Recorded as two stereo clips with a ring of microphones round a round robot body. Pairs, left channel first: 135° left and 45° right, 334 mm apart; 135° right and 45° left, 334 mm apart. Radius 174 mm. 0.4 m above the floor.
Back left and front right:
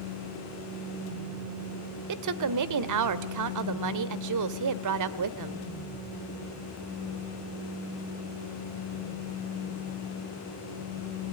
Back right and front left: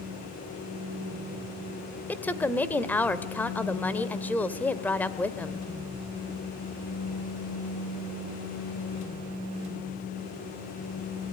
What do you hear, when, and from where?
2.1 s a woman speaking: 50° right, 1.6 m